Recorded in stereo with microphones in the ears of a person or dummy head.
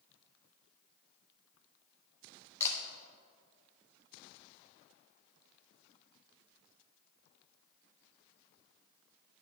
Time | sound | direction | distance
2.6 | a camera shutter | 15° left (ahead or behind) | 1.2 m